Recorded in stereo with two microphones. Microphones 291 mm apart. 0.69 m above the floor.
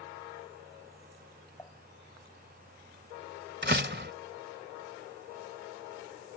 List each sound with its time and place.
1.6 s dishes clattering: 10° left (ahead or behind)
3.6 s a door slam: 40° right (ahead or behind)